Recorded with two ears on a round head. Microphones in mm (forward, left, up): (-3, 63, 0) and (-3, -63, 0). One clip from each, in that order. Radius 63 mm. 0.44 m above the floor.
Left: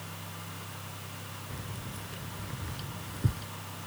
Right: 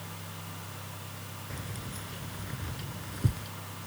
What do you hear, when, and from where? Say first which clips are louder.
1.5 s keys jangling: right 1 dB; 25° right (ahead or behind); by 3.5 s 10° right (ahead or behind)